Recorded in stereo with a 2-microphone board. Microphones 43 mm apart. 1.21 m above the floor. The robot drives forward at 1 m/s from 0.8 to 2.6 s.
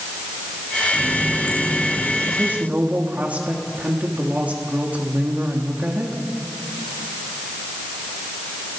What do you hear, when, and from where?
0.9 s a running tap: 75° left (ahead or behind), 7.5 m; by 2.2 s 65° left (ahead or behind), 8 m
2.3 s a woman speaking: 40° right (ahead or behind), 2.5 m